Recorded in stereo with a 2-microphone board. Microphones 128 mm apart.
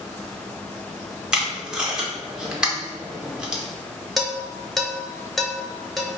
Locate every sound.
1.3 s tape being pulled: 5° right (ahead or behind), 0.7 m
4.2 s dishes clattering: centre (ahead or behind), 0.7 m